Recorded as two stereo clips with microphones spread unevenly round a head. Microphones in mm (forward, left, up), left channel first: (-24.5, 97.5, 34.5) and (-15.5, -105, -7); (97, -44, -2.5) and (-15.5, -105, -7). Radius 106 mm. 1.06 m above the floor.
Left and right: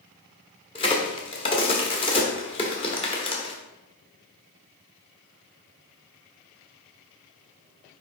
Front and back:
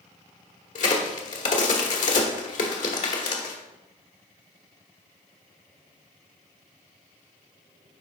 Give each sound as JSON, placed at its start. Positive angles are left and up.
{"t": 0.8, "sound": "a crack", "azimuth_deg": 35, "distance_m": 1.1}